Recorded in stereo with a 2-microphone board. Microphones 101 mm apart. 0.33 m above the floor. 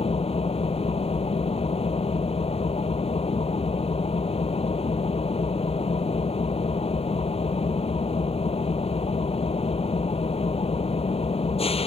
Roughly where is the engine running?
Left.